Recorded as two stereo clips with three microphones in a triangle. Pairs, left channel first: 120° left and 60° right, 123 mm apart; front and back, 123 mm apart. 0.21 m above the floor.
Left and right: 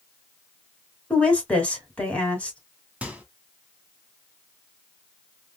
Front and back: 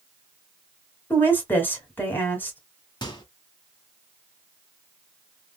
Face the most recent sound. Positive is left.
turn(degrees=15)